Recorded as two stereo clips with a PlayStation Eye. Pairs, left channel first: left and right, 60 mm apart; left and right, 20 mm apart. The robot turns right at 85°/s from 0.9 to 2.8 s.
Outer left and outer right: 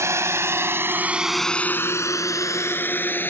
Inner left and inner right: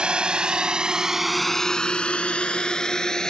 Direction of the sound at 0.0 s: 60° right (ahead or behind).